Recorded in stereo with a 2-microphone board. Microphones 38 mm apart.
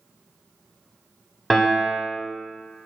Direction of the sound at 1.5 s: 5° left (ahead or behind).